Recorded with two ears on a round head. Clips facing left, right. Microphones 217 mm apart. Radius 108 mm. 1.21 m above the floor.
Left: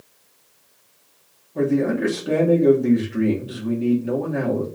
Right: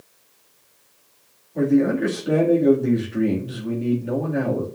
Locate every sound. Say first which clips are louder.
1.6 s a man speaking: right 2 dB; 5° left (ahead or behind), 2.5 m